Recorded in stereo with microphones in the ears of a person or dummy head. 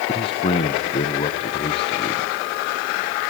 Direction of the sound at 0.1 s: 30° left (ahead or behind).